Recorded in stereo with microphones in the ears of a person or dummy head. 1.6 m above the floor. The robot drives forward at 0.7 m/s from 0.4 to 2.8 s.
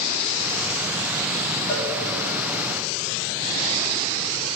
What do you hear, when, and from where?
1.7 s a cowbell: 70° left (ahead or behind), 4 m; by 1.9 s 65° left (ahead or behind), 4 m